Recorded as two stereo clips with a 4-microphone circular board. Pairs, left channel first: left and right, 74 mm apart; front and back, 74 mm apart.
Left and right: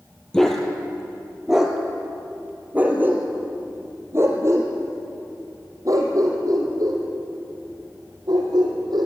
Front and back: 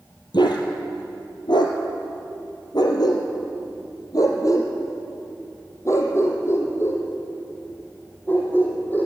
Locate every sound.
0.3 s a dog barking: 5° left, 2.5 m; by 9.1 s 70° right, 4.5 m